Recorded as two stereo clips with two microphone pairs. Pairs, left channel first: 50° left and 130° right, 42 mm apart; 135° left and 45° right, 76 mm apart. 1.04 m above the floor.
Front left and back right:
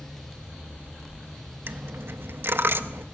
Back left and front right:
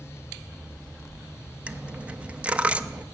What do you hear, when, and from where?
1.7 s a dropped coin: 115° right, 0.5 m